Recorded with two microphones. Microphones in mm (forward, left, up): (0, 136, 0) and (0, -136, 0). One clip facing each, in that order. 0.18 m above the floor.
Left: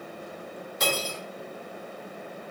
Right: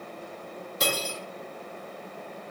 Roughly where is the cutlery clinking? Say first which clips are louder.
Left 1 dB; right.